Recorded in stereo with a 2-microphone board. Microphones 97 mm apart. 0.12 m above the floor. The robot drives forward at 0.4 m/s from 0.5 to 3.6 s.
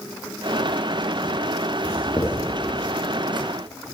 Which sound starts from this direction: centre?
Writing, at 1.8 s.